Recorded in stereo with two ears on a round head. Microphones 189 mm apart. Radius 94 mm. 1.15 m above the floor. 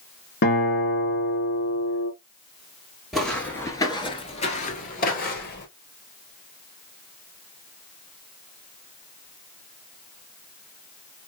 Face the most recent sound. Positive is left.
turn(degrees=50)  # may be behind; listen again after turning